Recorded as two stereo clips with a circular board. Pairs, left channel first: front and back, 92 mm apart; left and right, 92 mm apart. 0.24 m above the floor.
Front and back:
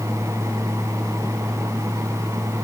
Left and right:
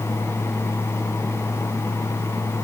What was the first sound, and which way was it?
Only background noise.